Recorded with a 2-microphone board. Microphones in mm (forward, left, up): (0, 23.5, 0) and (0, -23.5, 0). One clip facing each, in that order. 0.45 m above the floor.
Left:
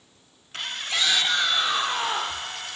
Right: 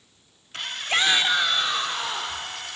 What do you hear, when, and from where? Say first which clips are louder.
0.9 s a shout: right 3 dB; 35° right (ahead or behind), 1.0 m; by 2.5 s 40° left (ahead or behind), 1.1 m